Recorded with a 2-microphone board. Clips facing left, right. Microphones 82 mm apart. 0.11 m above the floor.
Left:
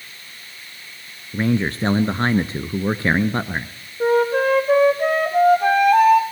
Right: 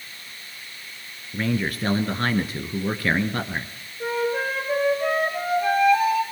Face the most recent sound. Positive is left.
turn(degrees=55)  # may be behind; listen again after turning